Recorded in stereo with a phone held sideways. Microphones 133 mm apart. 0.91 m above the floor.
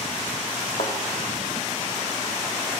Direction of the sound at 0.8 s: 75° left (ahead or behind).